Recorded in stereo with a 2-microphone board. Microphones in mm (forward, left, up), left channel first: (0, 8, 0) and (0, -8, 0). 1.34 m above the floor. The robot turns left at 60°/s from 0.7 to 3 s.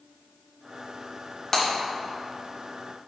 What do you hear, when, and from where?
1.5 s breaking glass: 25° left (ahead or behind), 1.6 m; by 1.6 s 20° left (ahead or behind), 1.6 m